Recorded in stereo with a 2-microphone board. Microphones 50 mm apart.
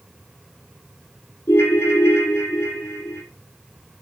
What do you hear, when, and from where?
1.5 s a ringtone: 70° left (ahead or behind), 2.5 m